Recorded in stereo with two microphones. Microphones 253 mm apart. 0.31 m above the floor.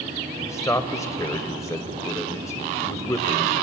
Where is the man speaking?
10° left (ahead or behind), 1.1 m.